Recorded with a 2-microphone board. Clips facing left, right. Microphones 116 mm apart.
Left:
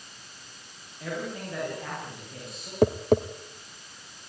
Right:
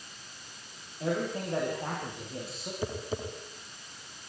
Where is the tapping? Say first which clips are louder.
Left 14 dB; 70° left (ahead or behind), 1.5 m.